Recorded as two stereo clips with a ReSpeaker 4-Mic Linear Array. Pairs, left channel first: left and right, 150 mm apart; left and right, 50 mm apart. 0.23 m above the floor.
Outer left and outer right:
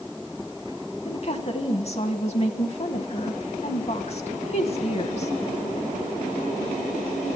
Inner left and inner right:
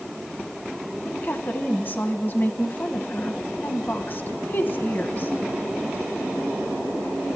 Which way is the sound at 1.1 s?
45° left (ahead or behind).